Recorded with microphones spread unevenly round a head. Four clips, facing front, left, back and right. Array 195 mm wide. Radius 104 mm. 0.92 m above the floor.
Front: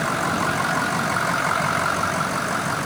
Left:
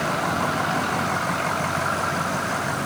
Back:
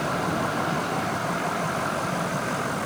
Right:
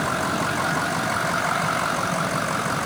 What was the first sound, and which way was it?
Only background noise.